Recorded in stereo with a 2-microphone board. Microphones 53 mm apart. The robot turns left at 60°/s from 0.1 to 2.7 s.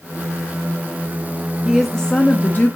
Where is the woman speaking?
170° right, 1.4 m; by 2.8 s 125° left, 1.4 m.